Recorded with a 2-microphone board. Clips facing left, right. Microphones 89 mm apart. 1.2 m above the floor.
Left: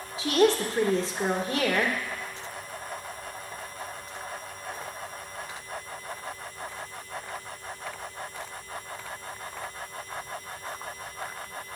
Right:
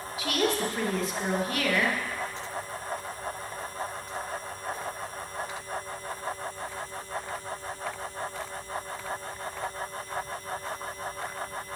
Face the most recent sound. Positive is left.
turn(degrees=30)  # may be behind; listen again after turning